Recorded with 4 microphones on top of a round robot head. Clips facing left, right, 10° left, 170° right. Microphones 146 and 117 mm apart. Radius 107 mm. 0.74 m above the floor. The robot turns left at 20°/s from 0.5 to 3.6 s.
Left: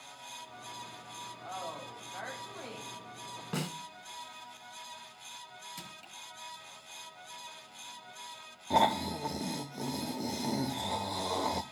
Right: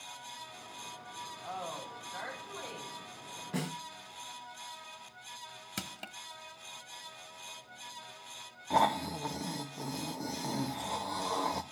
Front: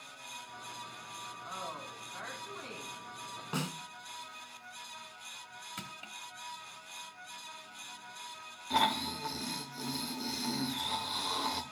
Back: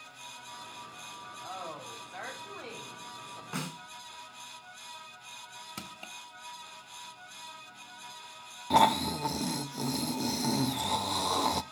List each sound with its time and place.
1.4 s a woman speaking: 175° right, 6 m; by 3.4 s 145° left, 6 m
3.5 s a snare drum: 85° left, 6 m
5.8 s crushing: 110° right, 1.2 m
8.7 s snoring: 155° left, 0.5 m